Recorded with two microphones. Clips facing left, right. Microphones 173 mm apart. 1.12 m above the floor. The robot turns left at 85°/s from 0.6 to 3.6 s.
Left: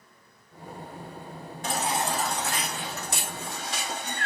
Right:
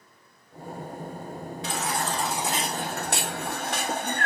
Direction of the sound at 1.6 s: 50° left.